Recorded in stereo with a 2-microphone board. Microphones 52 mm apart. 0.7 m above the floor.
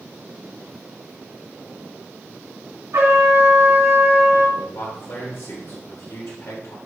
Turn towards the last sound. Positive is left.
turn(degrees=70)  # may be behind; listen again after turning